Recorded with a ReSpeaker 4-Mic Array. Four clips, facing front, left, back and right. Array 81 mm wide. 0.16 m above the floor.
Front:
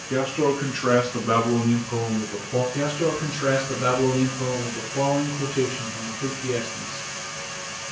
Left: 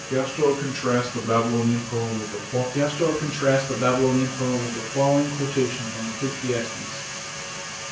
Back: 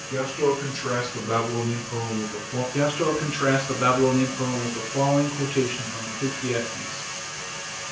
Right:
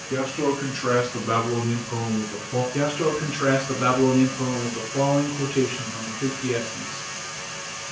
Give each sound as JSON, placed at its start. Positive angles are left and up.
{"t": 0.1, "sound": "a man speaking", "azimuth_deg": 0, "distance_m": 2.0}
{"t": 2.7, "sound": "a man speaking", "azimuth_deg": -145, "distance_m": 1.7}